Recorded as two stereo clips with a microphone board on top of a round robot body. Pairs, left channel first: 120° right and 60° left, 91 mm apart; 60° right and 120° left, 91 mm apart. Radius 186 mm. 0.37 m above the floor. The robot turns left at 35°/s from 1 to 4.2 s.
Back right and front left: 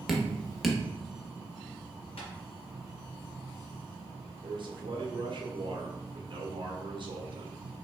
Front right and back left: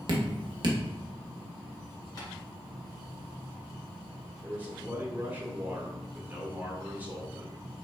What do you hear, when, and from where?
0.1 s dripping: 150° left, 1.1 m
2.2 s tapping: 110° right, 1.9 m; by 2.3 s 115° right, 1.9 m
4.4 s a man speaking: 50° left, 1.5 m